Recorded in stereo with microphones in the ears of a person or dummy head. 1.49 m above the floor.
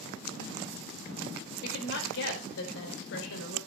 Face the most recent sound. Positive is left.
turn(degrees=70)  # may be behind; listen again after turning